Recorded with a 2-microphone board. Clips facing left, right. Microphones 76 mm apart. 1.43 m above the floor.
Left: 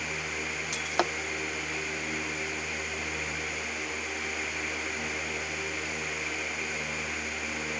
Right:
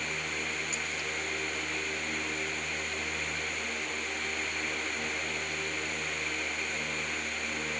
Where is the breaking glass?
75° left (ahead or behind).